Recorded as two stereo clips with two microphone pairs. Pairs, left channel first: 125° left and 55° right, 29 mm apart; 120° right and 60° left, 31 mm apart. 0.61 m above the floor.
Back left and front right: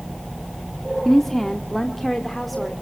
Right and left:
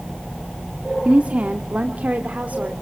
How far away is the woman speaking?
About 1.2 m.